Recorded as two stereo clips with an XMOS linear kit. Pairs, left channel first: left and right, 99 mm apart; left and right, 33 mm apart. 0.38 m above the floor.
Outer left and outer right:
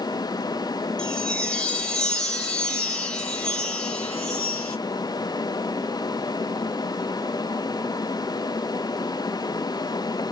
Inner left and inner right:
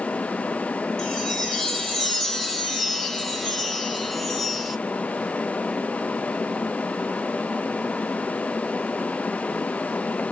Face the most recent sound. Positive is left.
turn(degrees=10)  # may be behind; listen again after turning